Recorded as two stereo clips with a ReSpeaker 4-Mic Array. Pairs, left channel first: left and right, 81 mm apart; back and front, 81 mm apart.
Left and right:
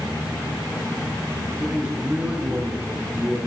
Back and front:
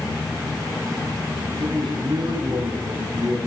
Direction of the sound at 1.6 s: 15° right.